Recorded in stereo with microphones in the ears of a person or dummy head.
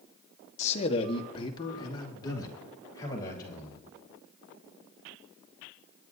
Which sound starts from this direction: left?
A man speaking, at 0.6 s.